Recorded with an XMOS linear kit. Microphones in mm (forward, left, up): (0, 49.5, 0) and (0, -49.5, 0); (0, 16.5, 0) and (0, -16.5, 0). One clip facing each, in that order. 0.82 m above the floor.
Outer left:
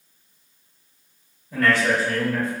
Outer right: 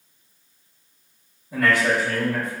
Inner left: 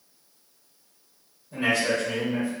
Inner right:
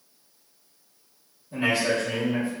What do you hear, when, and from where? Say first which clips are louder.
1.5 s a man speaking: even, even; 15° right (ahead or behind), 1.2 m